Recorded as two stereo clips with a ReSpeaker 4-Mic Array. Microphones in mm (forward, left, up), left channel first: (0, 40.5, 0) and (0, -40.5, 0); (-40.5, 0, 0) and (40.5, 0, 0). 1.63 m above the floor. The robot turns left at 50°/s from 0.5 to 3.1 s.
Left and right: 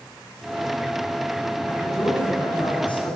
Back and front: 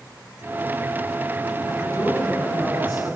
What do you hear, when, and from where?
1.7 s a man speaking: 160° left, 9 m; by 3.2 s 85° left, 9 m